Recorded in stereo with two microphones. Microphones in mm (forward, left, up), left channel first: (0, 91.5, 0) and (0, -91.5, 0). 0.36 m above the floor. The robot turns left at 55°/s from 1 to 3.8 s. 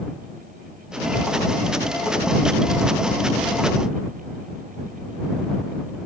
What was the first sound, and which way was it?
Only background noise.